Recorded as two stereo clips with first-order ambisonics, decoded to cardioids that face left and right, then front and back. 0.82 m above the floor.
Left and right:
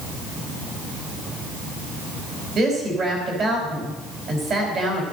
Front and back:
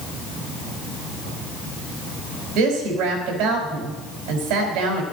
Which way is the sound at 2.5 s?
145° right.